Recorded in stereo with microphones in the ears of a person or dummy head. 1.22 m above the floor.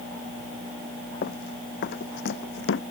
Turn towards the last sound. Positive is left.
turn(degrees=70)  # may be behind; listen again after turning